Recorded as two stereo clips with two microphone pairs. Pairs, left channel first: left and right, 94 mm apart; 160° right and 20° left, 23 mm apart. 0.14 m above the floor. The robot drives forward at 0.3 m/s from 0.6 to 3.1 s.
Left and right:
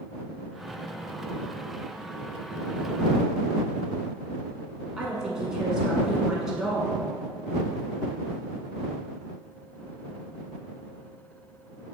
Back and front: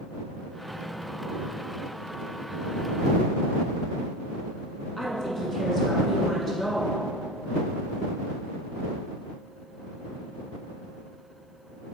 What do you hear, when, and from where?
5.0 s a woman speaking: 170° right, 1.1 m